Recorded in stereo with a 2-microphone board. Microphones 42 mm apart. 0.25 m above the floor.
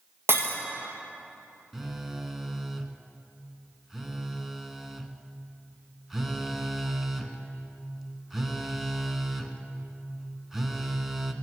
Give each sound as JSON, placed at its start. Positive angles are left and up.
{"t": 0.3, "sound": "breaking glass", "side_deg": -65, "distance_m": 1.8}
{"t": 1.7, "sound": "a phone buzzing", "side_deg": -5, "distance_m": 0.8}